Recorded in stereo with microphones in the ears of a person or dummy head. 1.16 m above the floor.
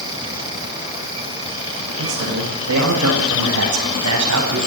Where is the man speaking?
80° right, 8 m; by 4.6 s 85° right, 9 m.